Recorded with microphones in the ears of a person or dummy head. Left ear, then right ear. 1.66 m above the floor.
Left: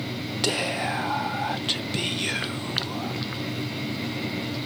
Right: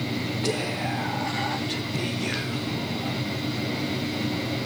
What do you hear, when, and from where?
0.4 s whispering: 60° left (ahead or behind), 1.6 m